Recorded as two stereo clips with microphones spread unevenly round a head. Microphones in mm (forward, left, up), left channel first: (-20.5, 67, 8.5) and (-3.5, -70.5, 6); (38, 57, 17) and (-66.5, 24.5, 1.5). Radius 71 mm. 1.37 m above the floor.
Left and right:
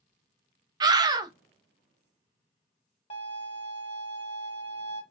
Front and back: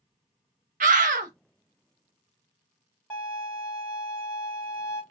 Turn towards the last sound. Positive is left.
turn(degrees=70)